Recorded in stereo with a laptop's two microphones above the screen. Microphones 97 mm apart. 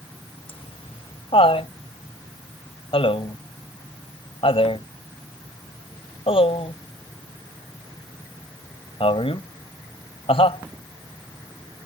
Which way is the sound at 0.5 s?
70° left (ahead or behind).